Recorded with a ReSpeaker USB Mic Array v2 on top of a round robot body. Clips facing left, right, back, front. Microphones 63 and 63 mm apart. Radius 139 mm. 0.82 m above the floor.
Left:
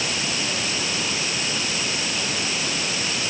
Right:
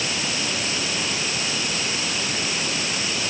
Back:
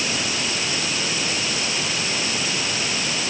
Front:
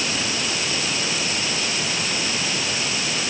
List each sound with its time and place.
Only background noise.